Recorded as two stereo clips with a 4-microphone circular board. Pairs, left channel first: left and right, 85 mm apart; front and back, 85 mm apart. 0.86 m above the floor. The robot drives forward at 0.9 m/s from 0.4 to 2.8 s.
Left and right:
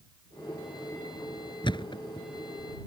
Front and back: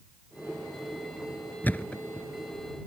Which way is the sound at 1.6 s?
70° left.